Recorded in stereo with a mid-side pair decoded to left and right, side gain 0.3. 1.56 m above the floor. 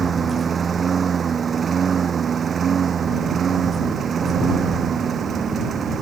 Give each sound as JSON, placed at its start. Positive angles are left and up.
{"t": 0.0, "sound": "a lawn mower", "azimuth_deg": -60}